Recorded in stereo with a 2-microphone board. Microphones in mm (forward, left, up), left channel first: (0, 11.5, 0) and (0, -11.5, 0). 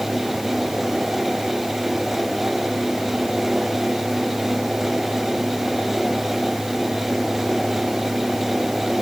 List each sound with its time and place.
Only background noise.